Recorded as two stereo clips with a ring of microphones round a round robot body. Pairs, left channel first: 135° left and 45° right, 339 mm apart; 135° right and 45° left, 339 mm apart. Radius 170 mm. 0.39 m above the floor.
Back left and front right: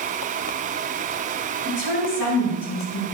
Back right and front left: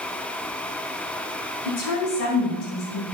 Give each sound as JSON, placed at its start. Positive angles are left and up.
{"t": 1.6, "sound": "a woman speaking", "azimuth_deg": 180, "distance_m": 3.0}